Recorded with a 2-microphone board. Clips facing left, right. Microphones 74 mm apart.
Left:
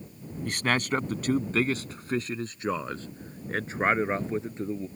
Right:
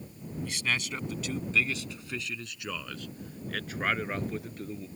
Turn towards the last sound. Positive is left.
turn(degrees=25)  # may be behind; listen again after turning